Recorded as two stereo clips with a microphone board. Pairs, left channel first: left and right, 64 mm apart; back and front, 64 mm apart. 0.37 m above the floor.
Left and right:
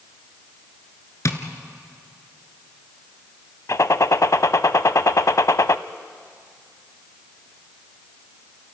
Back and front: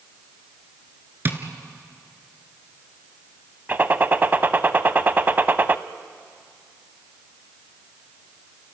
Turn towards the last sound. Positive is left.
turn(degrees=55)